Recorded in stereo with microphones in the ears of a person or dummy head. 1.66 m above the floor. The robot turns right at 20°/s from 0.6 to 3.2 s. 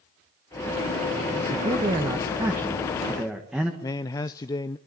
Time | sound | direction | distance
1.5 | a man speaking | 35° right | 1.9 m
3.8 | a man speaking | 25° left (ahead or behind) | 0.6 m